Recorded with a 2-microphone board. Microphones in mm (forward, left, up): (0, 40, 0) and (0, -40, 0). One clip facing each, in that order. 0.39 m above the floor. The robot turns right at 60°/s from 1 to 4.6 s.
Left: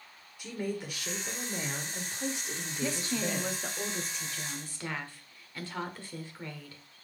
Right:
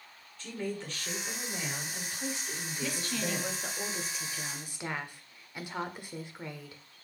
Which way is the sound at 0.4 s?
15° left (ahead or behind).